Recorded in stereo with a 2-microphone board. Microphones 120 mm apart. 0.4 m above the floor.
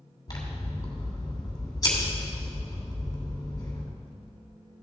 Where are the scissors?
30° left (ahead or behind), 2.5 m.